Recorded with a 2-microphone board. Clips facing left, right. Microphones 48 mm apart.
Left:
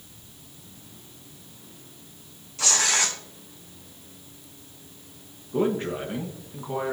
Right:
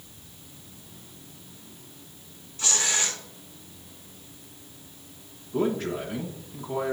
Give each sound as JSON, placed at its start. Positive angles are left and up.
{"t": 2.6, "sound": "tearing paper", "side_deg": 75, "distance_m": 1.2}
{"t": 5.5, "sound": "a man speaking", "side_deg": 25, "distance_m": 1.4}